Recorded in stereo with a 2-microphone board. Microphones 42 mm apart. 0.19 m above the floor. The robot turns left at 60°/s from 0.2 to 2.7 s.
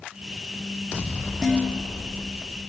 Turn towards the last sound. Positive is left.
turn(degrees=-80)